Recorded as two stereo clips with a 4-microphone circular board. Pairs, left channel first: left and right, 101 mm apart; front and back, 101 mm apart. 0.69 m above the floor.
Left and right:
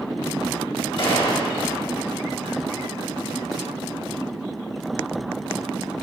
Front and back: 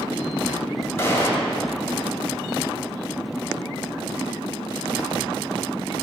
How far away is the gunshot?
About 1.1 m.